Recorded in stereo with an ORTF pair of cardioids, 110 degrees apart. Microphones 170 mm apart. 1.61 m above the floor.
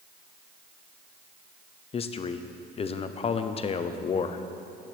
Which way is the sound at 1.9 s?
35° left.